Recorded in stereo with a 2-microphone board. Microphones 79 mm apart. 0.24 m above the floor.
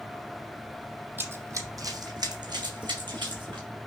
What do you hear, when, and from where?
1.2 s running footsteps: 25° right (ahead or behind), 0.5 m; by 3.7 s 75° right (ahead or behind), 1.5 m